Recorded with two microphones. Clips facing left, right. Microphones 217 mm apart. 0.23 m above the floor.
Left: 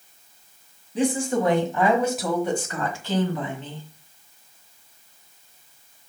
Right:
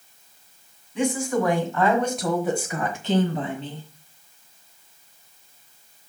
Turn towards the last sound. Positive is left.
turn(degrees=-40)  # may be behind; listen again after turning